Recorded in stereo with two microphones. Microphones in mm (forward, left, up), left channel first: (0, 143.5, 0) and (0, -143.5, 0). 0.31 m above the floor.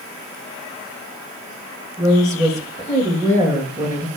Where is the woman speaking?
10° right (ahead or behind), 6 m.